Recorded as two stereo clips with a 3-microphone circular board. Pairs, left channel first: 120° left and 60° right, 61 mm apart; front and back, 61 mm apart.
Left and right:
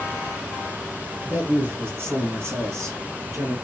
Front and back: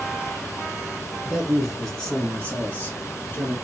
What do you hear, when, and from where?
1.2 s a man speaking: 100° right, 1.3 m; by 3.5 s 40° right, 1.7 m